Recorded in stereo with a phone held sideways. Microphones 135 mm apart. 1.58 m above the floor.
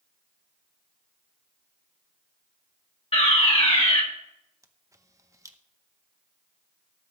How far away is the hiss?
No hiss in this recording.